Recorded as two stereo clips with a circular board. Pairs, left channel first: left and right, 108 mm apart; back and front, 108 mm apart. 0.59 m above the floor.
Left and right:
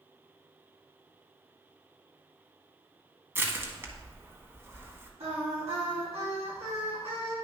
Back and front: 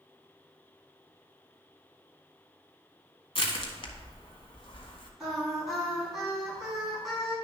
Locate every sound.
3.4 s crushing: 155° right, 1.2 m
5.2 s singing: 90° right, 4 m